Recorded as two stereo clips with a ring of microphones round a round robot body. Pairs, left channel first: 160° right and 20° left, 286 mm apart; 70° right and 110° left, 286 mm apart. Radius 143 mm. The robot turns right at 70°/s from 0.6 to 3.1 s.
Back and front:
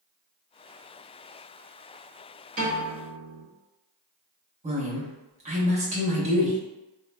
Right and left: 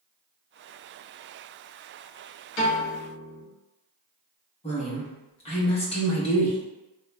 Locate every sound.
2.6 s a piano: 40° right, 1.1 m; by 3.5 s straight ahead, 1.1 m
4.6 s a woman speaking: 20° right, 0.8 m